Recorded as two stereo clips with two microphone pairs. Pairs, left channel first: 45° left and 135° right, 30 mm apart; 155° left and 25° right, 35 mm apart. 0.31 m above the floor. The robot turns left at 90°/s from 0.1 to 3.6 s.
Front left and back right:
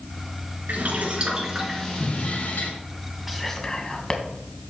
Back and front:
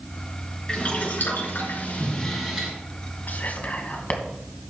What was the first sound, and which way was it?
Boiling, 140° right.